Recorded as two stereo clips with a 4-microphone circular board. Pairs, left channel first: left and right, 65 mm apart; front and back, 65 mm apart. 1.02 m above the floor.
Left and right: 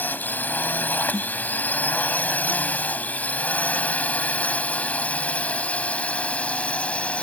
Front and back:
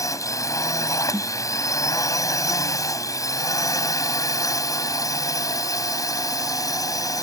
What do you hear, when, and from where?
0.0 s a drone: 30° left; by 7.2 s 20° left
1.1 s a snare drum: 105° left